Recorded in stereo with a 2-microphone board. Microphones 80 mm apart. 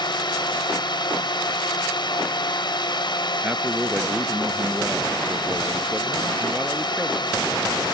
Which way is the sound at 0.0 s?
65° left (ahead or behind).